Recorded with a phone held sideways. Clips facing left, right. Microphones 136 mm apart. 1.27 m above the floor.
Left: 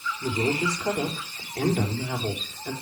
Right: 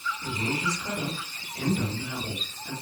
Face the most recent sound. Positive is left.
turn(degrees=70)  # may be behind; listen again after turning